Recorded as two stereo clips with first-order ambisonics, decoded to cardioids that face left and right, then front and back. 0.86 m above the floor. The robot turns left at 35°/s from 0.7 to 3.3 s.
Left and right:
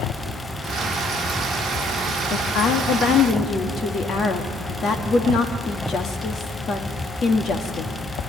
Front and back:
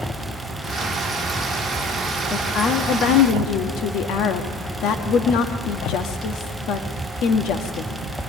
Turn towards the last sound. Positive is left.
turn(degrees=30)